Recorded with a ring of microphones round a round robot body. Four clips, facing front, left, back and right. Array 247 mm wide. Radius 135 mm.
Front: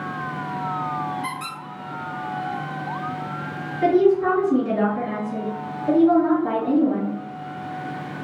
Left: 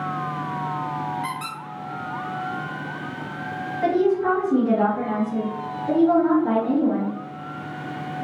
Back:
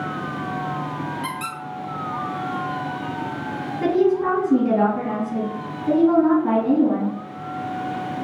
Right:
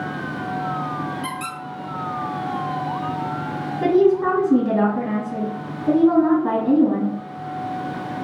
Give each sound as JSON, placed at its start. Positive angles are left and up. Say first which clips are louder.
{"t": 1.2, "sound": "a squeak", "louder": "right 1 dB, back 1 dB", "azimuth_deg": -135, "distance_m": 1.1}
{"t": 3.8, "sound": "a woman speaking", "louder": "right 4 dB, front 2 dB", "azimuth_deg": -110, "distance_m": 1.9}